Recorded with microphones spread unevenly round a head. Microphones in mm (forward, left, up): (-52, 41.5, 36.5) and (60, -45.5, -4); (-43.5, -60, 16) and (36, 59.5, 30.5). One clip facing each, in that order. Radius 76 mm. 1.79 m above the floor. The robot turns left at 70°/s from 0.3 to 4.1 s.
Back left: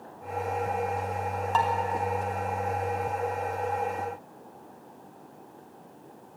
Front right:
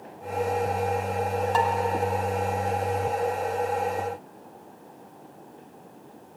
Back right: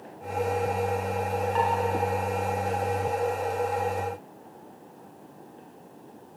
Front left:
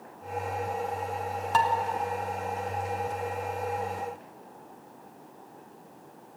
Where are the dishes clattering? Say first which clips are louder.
Front right 1 dB, front left 2 dB; 45° left, 3 m; by 1.7 s 35° left, 3 m.